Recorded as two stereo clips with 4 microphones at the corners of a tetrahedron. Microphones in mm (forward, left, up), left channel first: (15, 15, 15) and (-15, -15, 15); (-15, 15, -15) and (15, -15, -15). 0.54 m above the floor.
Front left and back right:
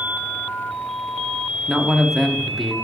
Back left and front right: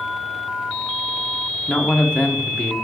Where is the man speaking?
135° left, 0.7 m.